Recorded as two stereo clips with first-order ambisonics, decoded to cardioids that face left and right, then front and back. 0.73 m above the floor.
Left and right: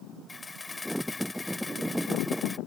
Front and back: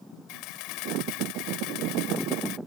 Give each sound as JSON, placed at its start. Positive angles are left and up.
{"t": 0.3, "sound": "a camera shutter", "azimuth_deg": 15}